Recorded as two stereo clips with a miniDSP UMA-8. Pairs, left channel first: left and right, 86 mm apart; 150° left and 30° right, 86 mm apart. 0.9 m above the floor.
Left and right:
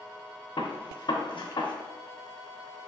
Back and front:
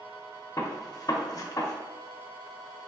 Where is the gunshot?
110° left, 0.7 m.